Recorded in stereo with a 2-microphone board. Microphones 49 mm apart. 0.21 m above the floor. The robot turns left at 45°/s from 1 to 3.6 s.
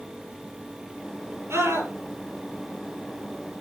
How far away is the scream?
About 5.5 m.